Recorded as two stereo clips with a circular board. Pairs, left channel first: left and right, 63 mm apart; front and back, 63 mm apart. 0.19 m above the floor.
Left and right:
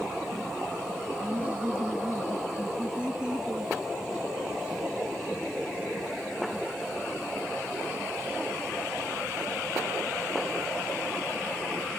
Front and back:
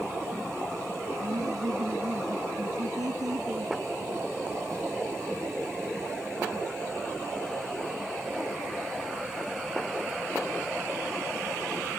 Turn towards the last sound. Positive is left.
turn(degrees=-165)